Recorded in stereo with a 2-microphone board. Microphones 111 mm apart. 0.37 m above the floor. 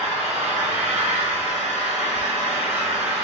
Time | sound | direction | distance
0.0 | an engine running | 70° right (ahead or behind) | 0.9 m